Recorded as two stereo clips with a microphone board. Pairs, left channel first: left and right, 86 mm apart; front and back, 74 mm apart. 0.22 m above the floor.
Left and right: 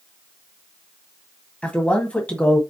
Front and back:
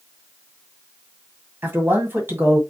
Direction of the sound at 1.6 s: 155° left.